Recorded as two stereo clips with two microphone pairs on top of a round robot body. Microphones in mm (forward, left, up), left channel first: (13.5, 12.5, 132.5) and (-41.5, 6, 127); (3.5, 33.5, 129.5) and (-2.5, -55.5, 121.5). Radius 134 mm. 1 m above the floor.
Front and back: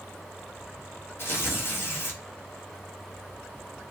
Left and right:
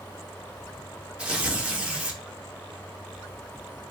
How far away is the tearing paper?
About 1.1 m.